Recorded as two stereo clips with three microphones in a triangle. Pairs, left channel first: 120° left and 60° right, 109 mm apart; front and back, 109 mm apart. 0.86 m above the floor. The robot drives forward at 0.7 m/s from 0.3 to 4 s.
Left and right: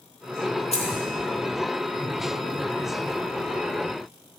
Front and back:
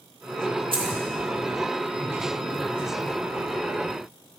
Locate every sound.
0.7 s keys jangling: 140° left, 1.3 m; by 1.0 s 145° left, 1.4 m